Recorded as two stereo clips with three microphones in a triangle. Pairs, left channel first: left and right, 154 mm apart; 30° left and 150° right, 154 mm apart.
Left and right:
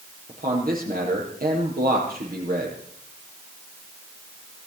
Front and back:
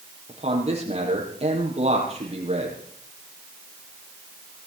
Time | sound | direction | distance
0.3 | a man speaking | 105° right | 7 m